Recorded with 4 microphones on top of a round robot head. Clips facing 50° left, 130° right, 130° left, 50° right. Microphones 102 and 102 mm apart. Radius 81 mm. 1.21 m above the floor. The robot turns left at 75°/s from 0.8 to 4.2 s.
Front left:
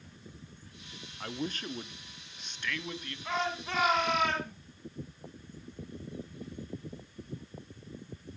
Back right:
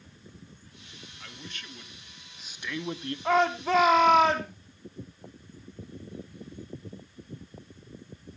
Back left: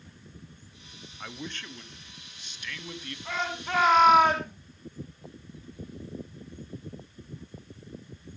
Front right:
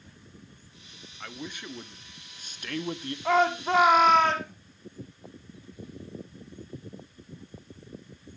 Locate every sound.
1.2 s a man speaking: 50° left, 0.7 m; by 3.1 s 95° right, 0.7 m
3.2 s a shout: 85° right, 2.5 m; by 4.5 s 155° right, 2.5 m